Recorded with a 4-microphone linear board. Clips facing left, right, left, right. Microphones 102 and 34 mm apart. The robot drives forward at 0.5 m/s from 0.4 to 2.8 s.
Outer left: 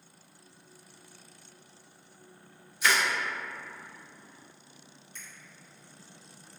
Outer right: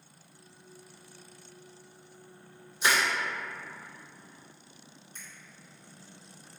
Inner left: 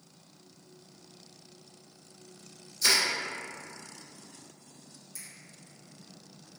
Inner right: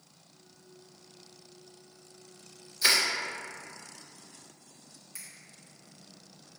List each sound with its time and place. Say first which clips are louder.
2.8 s crushing: even, inner right 1 dB; 30° right (ahead or behind), 1.6 m
5.2 s a finger snap: outer left 1 dB, inner right 1 dB; 35° right (ahead or behind), 1.3 m